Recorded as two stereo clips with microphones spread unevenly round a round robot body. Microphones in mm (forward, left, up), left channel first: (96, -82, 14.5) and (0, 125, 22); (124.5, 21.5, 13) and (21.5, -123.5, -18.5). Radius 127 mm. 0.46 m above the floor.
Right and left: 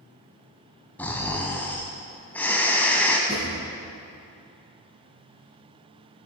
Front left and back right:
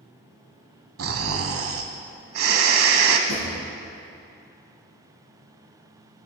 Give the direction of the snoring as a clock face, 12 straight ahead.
5 o'clock.